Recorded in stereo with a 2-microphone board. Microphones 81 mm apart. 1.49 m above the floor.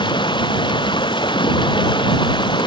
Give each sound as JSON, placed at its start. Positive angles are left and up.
{"t": 0.0, "sound": "running water", "side_deg": 75}